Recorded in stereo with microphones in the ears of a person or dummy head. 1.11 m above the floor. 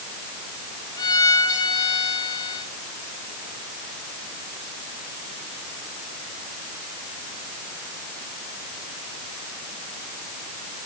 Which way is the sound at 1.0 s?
20° left (ahead or behind).